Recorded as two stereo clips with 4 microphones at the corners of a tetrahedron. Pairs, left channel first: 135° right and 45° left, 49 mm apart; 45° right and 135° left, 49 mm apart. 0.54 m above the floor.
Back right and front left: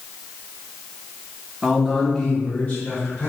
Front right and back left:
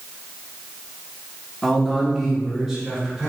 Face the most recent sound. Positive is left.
turn(degrees=-145)